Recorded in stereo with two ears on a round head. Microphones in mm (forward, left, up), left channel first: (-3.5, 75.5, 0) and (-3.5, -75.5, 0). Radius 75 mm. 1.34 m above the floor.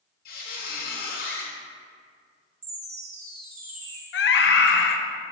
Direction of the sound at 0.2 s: 55° left (ahead or behind).